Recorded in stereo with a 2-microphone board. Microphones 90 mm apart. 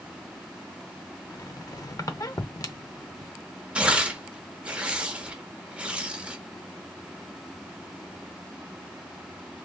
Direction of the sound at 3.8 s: 15° right (ahead or behind).